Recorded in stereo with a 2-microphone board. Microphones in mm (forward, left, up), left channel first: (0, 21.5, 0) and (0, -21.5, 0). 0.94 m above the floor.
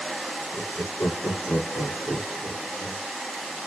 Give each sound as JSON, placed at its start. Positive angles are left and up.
{"t": 0.5, "sound": "laughter", "side_deg": 80, "distance_m": 2.5}